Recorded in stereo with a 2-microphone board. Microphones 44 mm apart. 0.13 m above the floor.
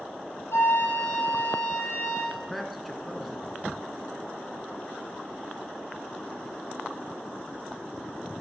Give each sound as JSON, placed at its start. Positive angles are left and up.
{"t": 0.5, "sound": "a flute", "side_deg": 70, "distance_m": 4.0}
{"t": 2.3, "sound": "a man speaking", "side_deg": 0, "distance_m": 1.1}